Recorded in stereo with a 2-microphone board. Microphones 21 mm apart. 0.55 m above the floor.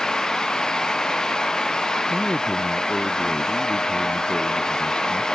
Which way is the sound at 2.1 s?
70° left (ahead or behind).